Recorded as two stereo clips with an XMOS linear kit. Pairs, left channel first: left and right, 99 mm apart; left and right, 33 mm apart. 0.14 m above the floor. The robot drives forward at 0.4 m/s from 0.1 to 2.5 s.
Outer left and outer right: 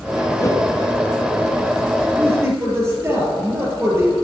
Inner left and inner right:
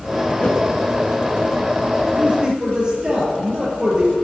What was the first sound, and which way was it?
A whoosh, 35° left (ahead or behind).